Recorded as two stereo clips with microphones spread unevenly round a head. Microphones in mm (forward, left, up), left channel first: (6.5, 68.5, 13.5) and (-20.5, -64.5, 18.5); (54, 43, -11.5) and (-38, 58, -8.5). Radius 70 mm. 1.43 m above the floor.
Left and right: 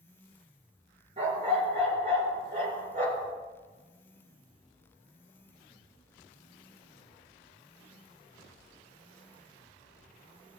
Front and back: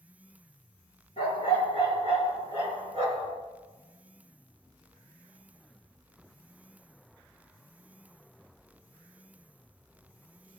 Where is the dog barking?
50° right, 5.5 m; by 3.3 s 65° right, 5.5 m.